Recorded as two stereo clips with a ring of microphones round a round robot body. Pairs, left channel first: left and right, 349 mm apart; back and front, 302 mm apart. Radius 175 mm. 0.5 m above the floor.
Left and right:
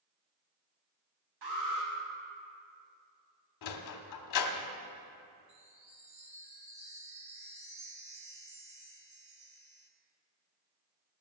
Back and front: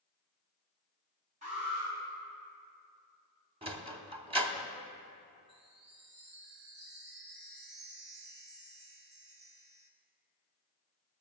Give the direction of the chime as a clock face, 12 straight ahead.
1 o'clock.